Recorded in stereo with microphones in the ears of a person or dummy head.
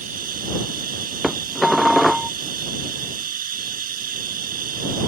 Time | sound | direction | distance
0.0 | running water | 45° right (ahead or behind) | ?
1.2 | dishes clattering | centre (ahead or behind) | ?